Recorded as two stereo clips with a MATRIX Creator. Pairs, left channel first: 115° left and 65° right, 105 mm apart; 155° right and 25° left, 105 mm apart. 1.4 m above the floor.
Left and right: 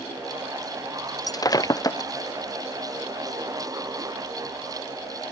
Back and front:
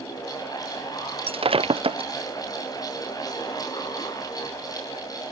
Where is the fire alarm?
I don't hear a fire alarm.